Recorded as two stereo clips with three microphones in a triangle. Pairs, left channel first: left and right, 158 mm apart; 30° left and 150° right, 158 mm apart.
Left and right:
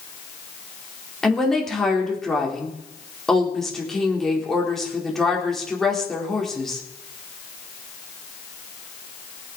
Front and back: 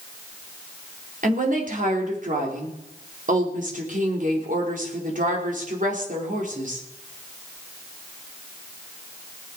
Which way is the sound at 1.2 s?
Straight behind.